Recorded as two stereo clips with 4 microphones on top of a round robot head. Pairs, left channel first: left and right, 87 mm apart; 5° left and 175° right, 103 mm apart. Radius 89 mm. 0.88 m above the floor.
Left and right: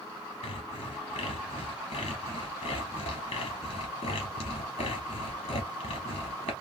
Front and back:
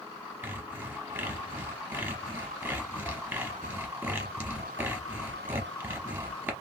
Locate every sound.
0.4 s sawing: 110° left, 0.8 m